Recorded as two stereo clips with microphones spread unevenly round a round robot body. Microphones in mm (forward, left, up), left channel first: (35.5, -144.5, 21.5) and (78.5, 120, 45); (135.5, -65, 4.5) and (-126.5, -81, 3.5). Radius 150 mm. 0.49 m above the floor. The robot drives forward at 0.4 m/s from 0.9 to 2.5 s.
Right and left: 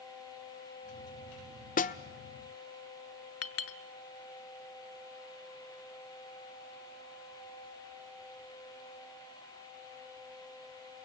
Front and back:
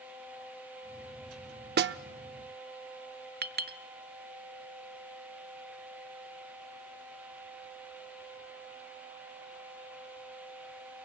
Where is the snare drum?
140° right, 0.6 m; by 2.0 s 145° right, 0.7 m.